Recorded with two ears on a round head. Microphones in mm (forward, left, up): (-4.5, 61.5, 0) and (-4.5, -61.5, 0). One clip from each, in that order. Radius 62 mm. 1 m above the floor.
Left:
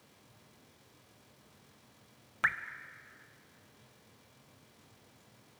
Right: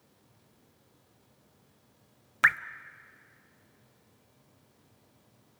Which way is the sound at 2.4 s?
35° right (ahead or behind).